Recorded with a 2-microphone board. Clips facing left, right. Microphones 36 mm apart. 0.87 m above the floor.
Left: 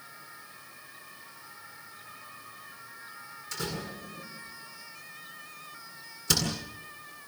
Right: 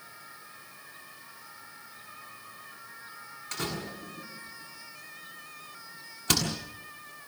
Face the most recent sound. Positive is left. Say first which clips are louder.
# right 1 dB
turn(degrees=-55)  # may be behind; listen again after turning